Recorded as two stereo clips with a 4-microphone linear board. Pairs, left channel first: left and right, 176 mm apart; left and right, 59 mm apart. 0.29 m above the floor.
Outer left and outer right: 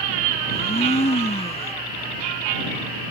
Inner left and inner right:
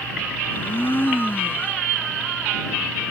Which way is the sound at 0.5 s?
35° left (ahead or behind).